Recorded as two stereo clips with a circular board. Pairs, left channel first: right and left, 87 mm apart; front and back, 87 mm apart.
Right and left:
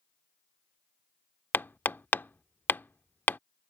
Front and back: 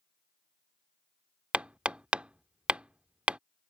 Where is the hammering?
120° right.